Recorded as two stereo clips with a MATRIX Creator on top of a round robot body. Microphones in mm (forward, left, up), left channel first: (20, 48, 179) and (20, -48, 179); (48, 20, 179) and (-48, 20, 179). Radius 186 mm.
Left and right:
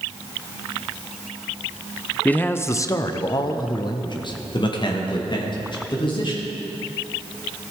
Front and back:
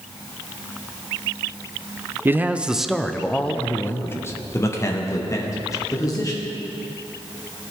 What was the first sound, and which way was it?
A man speaking, 145° left.